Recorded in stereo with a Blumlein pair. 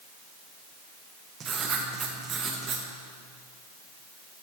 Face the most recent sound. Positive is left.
turn(degrees=-20)